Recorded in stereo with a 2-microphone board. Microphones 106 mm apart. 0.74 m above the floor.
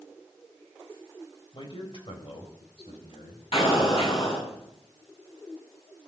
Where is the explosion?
55° left (ahead or behind), 6.5 m.